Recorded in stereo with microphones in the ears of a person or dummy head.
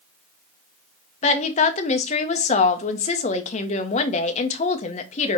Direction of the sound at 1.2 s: 35° left (ahead or behind).